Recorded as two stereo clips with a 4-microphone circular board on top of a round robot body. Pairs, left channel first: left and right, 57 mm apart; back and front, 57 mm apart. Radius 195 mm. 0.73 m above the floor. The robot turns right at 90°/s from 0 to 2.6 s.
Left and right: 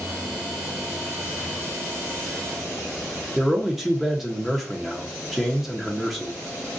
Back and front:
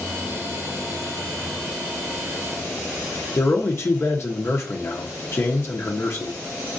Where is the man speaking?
170° right, 0.9 m.